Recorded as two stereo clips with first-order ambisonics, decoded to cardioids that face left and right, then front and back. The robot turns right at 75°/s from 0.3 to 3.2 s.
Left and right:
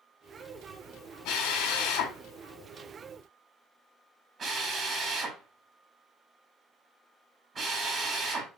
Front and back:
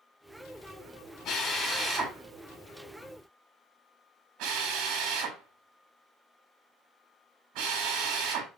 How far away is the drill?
About 4.5 m.